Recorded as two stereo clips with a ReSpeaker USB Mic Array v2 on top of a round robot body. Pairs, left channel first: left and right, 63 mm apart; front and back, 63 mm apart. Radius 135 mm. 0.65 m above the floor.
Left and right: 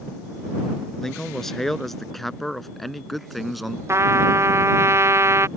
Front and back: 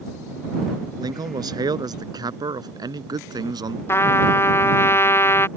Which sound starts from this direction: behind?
A man speaking, at 1.0 s.